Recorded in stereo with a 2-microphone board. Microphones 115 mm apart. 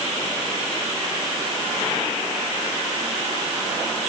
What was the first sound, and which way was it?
Only background noise.